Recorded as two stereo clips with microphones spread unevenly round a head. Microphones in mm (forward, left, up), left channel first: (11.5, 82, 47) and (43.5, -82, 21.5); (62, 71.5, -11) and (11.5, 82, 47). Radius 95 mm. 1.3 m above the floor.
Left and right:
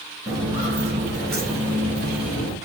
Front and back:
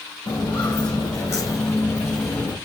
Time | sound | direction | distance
0.3 | footsteps | 10° right | 1.3 m